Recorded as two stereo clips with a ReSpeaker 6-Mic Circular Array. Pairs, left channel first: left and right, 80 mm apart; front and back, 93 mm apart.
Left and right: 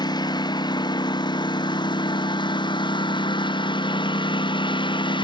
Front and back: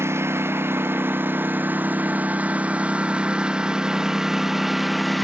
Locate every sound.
0.0 s a lawn mower: 120° left; by 5.2 s 90° left